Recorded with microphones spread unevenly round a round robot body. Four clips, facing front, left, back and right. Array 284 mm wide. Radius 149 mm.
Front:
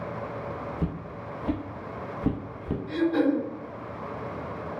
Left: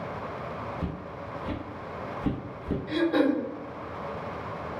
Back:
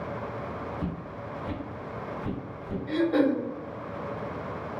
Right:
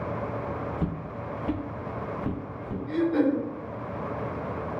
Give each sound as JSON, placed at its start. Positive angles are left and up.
{"t": 0.8, "sound": "footsteps", "azimuth_deg": -50, "distance_m": 1.0}
{"t": 2.9, "sound": "throat clearing", "azimuth_deg": 145, "distance_m": 0.9}